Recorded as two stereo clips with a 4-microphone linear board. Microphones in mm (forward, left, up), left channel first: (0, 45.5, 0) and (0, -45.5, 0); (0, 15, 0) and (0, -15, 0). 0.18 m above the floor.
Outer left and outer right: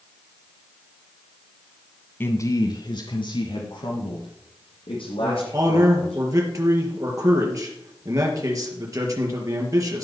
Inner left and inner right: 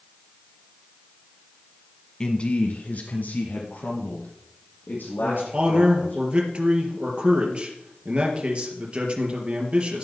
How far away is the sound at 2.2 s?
About 1.1 m.